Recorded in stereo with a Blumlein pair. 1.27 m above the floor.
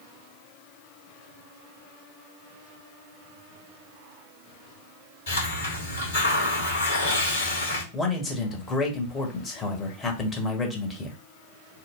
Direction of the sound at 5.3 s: 60° left.